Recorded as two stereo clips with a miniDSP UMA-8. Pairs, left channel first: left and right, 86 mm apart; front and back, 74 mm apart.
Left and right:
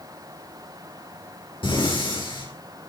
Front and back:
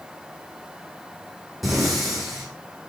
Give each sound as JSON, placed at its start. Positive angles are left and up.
{"t": 1.6, "sound": "breathing", "azimuth_deg": 90, "distance_m": 8.0}